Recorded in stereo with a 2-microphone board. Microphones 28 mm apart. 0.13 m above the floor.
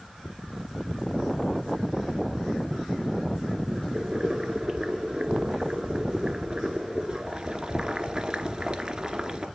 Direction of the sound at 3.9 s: 35° right (ahead or behind).